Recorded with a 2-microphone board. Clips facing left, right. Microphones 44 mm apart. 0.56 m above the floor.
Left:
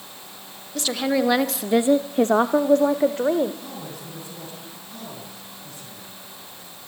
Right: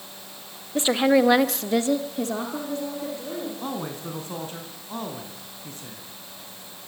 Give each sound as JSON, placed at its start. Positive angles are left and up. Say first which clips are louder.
{"t": 0.8, "sound": "a woman speaking", "louder": "right 4 dB", "side_deg": -25, "distance_m": 1.6}
{"t": 3.6, "sound": "a man speaking", "louder": "right 5 dB", "side_deg": -45, "distance_m": 4.5}